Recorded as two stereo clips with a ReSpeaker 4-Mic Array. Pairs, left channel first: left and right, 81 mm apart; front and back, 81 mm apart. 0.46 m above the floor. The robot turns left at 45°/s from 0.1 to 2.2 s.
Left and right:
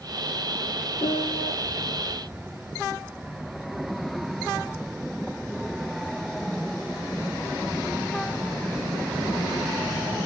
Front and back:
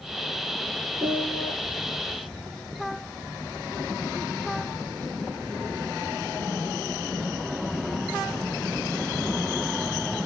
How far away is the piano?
About 1.1 m.